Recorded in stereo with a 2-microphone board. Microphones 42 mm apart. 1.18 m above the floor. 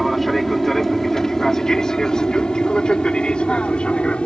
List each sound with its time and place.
0.0 s an aircraft: centre (ahead or behind); by 4.3 s 25° left (ahead or behind)